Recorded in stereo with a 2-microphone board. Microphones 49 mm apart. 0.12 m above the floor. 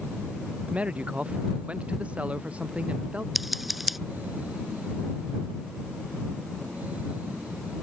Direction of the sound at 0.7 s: 25° right (ahead or behind).